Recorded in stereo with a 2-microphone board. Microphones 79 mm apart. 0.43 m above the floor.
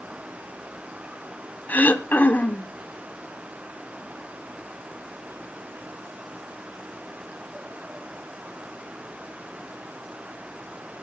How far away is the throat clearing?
About 0.6 m.